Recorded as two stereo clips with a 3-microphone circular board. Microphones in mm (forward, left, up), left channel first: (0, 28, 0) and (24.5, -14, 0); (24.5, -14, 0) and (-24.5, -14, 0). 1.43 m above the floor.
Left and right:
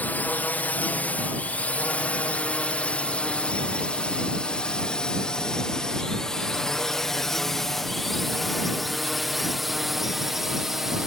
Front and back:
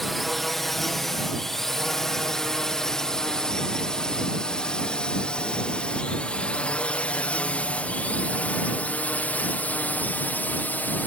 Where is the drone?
85° left; by 11.1 s 20° left.